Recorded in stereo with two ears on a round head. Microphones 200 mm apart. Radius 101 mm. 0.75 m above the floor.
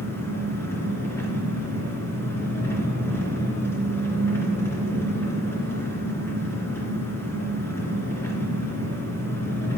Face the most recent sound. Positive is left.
turn(degrees=10)  # may be behind; listen again after turning